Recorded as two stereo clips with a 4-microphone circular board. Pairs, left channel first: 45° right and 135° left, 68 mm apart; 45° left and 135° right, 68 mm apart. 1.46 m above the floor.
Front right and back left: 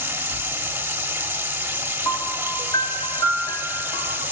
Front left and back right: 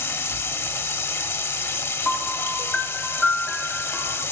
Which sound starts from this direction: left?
Running water, at 0.0 s.